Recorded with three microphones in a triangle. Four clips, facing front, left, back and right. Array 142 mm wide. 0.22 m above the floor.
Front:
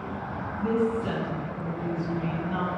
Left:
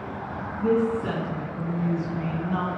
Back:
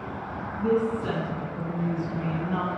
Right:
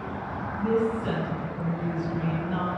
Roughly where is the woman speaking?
Behind left.